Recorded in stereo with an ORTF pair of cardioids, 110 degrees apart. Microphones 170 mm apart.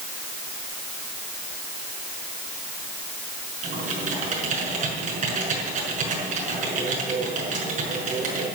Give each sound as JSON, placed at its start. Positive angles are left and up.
{"t": 3.6, "sound": "typing on a keyboard", "azimuth_deg": -45, "distance_m": 6.0}